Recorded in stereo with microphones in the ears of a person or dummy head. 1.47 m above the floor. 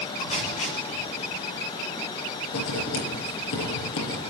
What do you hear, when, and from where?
0.2 s tape being pulled: 40° left (ahead or behind), 8.5 m
2.5 s writing: 80° left, 7 m